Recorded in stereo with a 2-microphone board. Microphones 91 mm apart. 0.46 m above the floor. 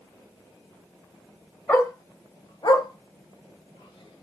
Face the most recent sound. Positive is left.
turn(degrees=75)  # may be behind; listen again after turning